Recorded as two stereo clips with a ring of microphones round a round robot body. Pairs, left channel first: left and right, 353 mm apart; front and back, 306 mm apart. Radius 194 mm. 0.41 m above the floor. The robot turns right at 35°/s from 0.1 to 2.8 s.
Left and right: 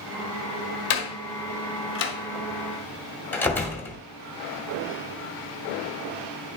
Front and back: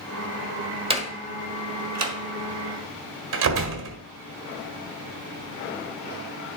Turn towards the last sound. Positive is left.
turn(degrees=175)